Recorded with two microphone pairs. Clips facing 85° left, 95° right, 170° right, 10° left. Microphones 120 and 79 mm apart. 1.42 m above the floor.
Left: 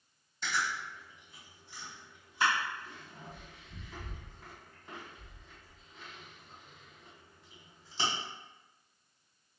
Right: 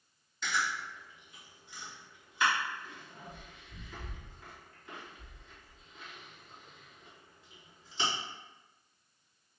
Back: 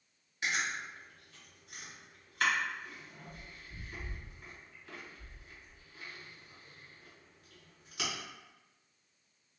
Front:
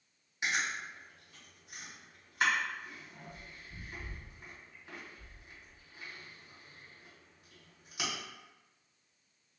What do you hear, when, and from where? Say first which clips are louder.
0.4 s chewing: right 1 dB, front 1 dB; 65° left, 1.5 m